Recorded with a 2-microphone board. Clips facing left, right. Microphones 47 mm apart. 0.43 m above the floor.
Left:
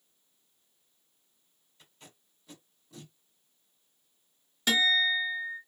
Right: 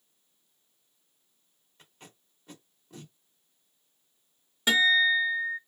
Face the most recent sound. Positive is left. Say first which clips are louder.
# right 4 dB
turn(degrees=-20)  # may be behind; listen again after turning